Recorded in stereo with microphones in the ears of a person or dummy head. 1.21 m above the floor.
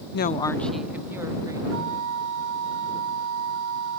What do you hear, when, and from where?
0.1 s a woman speaking: 60° left (ahead or behind); by 1.6 s 15° right (ahead or behind)
1.7 s a flute: 65° right (ahead or behind)